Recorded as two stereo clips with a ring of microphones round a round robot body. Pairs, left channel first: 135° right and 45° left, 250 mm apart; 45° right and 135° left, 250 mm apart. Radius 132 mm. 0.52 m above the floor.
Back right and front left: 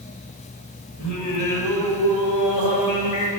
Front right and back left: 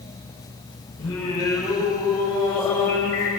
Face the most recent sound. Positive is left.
turn(degrees=-120)